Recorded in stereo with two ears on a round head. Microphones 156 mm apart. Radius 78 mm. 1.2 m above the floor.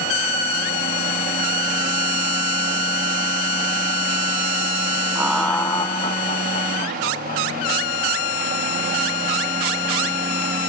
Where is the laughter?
15° right (ahead or behind), 0.7 m; by 7.7 s 55° left (ahead or behind), 2.5 m.